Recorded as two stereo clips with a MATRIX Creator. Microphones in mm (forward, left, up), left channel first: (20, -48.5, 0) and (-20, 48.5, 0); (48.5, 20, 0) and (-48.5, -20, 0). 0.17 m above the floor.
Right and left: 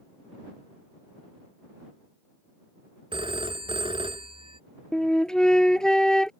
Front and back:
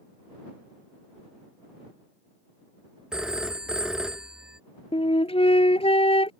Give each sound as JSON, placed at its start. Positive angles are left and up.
{"t": 3.1, "sound": "a phone ringing", "azimuth_deg": 120}
{"t": 4.9, "sound": "a flute", "azimuth_deg": 15}